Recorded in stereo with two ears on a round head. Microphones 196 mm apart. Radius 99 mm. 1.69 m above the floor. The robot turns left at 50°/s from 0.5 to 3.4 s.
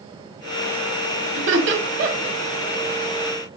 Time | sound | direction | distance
1.4 | laughter | 75° right (ahead or behind) | 2.5 m